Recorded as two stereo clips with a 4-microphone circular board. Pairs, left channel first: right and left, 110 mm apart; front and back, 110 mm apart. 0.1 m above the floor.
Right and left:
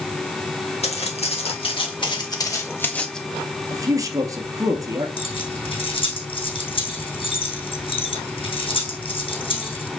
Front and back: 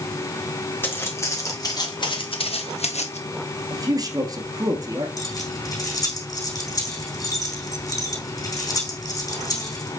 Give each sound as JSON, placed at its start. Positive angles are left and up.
{"t": 0.8, "sound": "footsteps", "azimuth_deg": -70, "distance_m": 3.0}
{"t": 3.7, "sound": "a man speaking", "azimuth_deg": 140, "distance_m": 1.7}
{"t": 5.2, "sound": "keys jangling", "azimuth_deg": -55, "distance_m": 4.0}